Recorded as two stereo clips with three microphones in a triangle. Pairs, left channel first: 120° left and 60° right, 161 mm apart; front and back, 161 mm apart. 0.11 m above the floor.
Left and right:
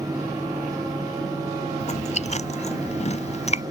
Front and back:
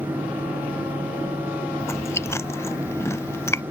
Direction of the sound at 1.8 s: 75° left.